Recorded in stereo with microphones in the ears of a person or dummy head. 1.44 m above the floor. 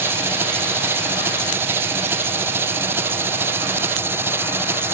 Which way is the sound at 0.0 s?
15° right (ahead or behind).